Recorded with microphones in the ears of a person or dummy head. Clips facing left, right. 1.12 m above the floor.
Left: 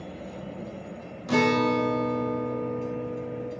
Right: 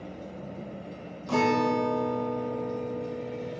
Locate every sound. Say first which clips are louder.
1.3 s a guitar: left 2 dB; 20° left (ahead or behind), 0.5 m